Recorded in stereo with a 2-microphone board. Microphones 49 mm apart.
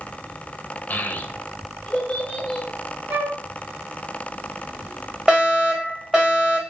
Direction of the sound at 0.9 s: 40° left (ahead or behind).